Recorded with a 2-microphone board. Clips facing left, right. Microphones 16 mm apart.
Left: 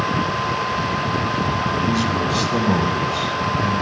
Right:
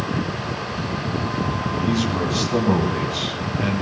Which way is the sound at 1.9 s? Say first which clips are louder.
Left 2 dB; 15° left (ahead or behind).